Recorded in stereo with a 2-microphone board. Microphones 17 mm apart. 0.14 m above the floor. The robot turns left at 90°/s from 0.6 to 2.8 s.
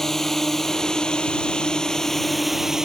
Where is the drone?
25° left (ahead or behind); by 2.9 s 25° right (ahead or behind).